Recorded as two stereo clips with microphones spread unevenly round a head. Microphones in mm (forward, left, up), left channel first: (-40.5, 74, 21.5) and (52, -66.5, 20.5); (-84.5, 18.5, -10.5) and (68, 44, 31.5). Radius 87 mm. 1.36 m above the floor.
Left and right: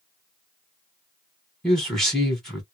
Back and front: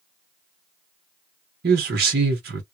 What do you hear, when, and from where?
1.6 s a man speaking: 35° left, 1.0 m